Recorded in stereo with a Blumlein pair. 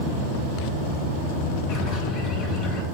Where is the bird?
35° left, 1.6 m.